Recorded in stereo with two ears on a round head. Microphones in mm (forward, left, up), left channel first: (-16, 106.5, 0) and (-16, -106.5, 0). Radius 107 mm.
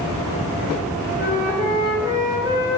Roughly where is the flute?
Centre.